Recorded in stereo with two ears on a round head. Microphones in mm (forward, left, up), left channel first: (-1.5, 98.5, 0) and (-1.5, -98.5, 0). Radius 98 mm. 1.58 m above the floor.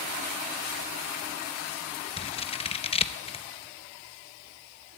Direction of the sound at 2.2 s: 25° left (ahead or behind).